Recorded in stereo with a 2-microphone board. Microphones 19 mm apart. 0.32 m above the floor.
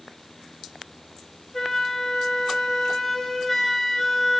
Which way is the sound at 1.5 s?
10° left (ahead or behind).